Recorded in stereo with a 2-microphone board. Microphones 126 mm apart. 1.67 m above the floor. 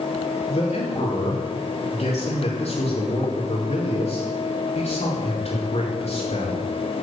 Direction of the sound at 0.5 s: 60° left (ahead or behind).